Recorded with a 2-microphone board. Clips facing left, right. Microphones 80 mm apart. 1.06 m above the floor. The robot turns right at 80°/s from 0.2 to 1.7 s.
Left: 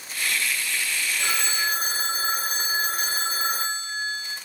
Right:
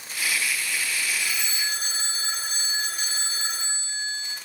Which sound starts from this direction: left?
A phone ringing, at 1.2 s.